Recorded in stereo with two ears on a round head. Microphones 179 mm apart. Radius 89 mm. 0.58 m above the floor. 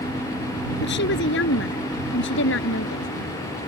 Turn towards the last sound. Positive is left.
turn(degrees=70)  # may be behind; listen again after turning